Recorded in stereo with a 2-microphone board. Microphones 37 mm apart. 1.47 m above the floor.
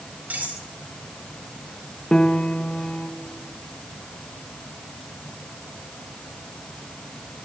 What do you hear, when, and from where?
0.3 s cutlery clinking: 40° right (ahead or behind), 3 m
2.1 s a piano: 20° left (ahead or behind), 0.8 m